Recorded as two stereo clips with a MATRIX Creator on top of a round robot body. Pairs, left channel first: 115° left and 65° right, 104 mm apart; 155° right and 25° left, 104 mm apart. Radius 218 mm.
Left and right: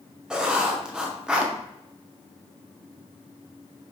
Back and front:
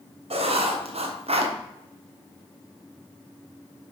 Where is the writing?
15° left, 1.5 m.